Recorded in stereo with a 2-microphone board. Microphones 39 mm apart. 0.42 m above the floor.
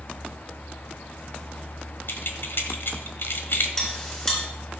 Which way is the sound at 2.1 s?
65° left (ahead or behind).